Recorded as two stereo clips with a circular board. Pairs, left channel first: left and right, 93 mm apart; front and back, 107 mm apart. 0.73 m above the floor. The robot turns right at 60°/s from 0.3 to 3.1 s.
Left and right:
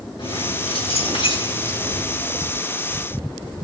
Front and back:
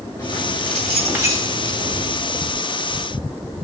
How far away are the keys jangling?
About 3 m.